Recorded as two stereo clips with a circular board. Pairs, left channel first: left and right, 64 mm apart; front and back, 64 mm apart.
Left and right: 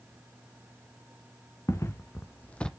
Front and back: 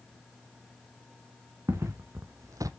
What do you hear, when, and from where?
1.7 s footsteps: 135° left, 1.3 m; by 2.7 s 170° left, 0.5 m